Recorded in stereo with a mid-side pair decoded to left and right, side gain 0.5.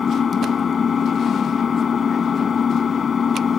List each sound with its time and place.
0.0 s an engine running: 40° left